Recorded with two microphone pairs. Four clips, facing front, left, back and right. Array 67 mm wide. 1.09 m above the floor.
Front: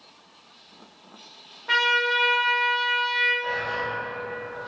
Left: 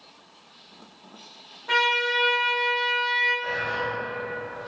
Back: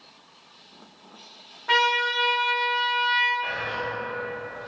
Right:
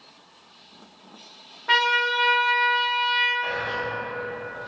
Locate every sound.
1.7 s a trumpet: 100° right, 0.5 m
3.4 s whispering: 115° right, 0.5 m